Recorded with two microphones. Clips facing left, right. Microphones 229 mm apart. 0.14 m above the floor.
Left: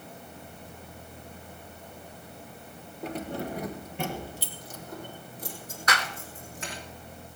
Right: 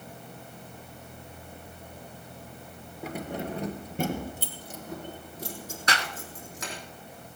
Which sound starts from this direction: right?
A clap, at 5.9 s.